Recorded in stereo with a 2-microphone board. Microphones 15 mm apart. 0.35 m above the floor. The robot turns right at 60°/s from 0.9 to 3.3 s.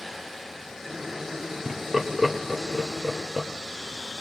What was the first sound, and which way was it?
Laughter, 25° right (ahead or behind).